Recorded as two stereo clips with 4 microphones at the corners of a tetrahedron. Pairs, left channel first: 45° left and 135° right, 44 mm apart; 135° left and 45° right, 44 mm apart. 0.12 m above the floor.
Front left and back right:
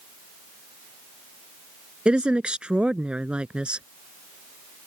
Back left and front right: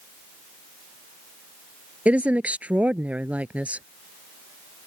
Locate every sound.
2.0 s a woman speaking: 80° right